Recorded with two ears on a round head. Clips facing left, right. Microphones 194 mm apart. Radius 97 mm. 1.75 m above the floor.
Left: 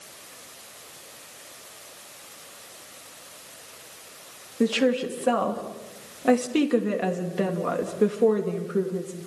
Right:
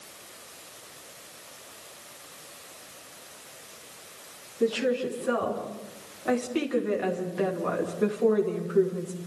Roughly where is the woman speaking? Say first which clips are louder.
Left 3 dB; left.